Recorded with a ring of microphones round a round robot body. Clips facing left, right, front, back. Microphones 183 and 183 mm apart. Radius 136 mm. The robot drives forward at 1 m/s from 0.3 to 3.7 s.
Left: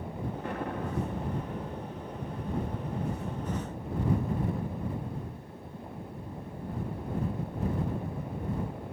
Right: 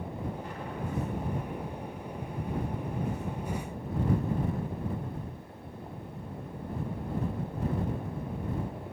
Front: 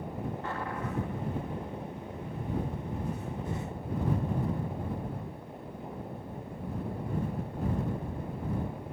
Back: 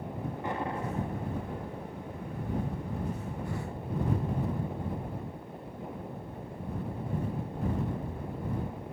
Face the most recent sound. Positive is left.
turn(degrees=155)